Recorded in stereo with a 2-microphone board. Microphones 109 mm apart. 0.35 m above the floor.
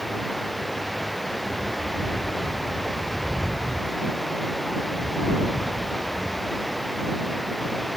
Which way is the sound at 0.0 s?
Centre (ahead or behind).